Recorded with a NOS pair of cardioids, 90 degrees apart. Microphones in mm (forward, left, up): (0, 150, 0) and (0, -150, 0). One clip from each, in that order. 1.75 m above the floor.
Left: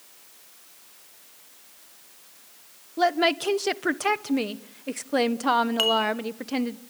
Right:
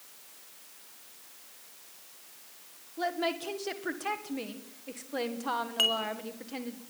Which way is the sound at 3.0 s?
60° left.